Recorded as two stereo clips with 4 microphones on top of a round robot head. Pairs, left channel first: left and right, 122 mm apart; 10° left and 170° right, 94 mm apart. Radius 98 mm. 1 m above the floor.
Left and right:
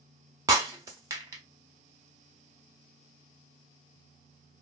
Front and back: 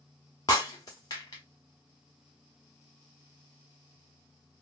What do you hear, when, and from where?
0.5 s breaking glass: 45° right, 0.5 m